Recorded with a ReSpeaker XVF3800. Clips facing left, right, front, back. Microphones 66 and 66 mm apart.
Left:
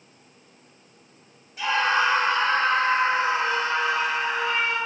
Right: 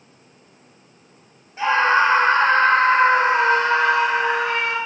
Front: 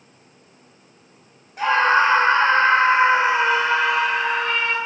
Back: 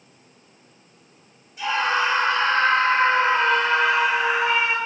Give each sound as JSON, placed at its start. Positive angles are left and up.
{"t": 1.6, "sound": "a scream", "azimuth_deg": -35, "distance_m": 2.5}